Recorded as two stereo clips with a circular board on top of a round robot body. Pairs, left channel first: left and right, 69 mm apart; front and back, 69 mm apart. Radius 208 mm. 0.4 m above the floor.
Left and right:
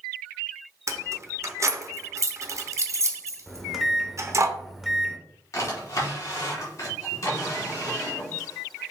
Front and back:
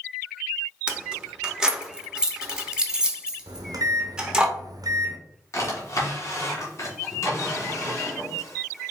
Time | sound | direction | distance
0.9 | keys jangling | 105° right | 0.9 m
3.5 | a microwave | straight behind | 0.8 m
5.5 | a drawer | 45° left | 1.5 m